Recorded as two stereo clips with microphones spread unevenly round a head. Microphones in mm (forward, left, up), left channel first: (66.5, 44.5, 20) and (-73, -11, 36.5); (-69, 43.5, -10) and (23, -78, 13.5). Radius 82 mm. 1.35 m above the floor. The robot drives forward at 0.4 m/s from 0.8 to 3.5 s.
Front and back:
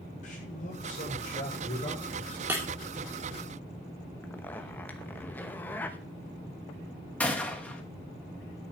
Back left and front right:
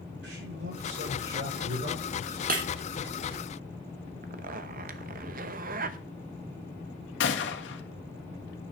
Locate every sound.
0.2 s a man speaking: 20° right, 6.5 m; by 2.4 s 25° right, 6 m
2.5 s breaking glass: 80° right, 2.5 m
4.2 s a zipper: 60° right, 0.8 m
7.2 s a gunshot: 105° left, 1.7 m